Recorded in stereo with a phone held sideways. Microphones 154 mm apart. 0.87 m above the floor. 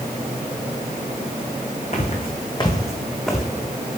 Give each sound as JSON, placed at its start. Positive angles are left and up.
{"t": 1.9, "sound": "footsteps", "side_deg": 50, "distance_m": 2.5}